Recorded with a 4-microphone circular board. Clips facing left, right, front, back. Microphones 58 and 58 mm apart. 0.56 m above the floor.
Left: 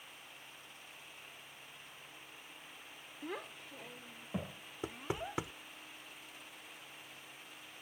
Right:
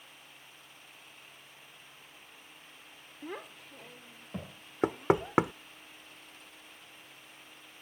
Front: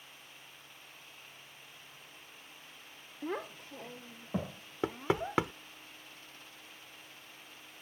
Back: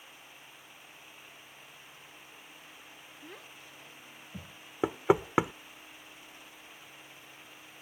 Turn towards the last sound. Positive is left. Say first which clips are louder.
# right 13 dB, back 6 dB
turn(degrees=-110)